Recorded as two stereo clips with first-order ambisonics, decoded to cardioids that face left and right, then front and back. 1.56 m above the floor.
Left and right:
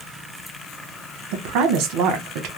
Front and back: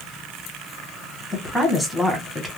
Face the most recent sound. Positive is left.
turn(degrees=-95)